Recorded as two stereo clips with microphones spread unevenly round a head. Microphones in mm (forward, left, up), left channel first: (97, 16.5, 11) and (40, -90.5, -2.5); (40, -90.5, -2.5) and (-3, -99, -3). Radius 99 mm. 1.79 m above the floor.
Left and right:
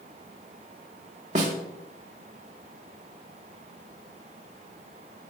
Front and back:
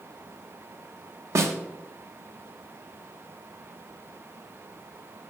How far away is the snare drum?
About 0.7 m.